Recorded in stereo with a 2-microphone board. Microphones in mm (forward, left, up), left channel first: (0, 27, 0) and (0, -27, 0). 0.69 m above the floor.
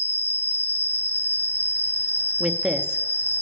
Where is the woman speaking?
20° right (ahead or behind), 0.7 m.